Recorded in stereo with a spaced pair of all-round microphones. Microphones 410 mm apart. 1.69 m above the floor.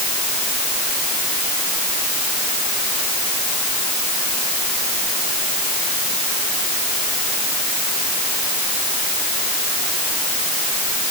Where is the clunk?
I don't hear a clunk.